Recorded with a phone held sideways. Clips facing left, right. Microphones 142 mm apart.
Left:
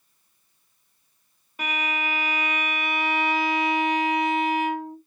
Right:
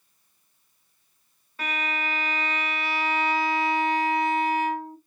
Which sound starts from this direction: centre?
A violin, at 1.6 s.